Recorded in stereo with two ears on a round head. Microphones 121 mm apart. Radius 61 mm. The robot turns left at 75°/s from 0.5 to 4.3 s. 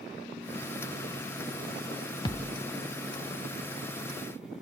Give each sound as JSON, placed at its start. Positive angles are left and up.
{"t": 2.2, "sound": "a thud", "side_deg": 30, "distance_m": 0.6}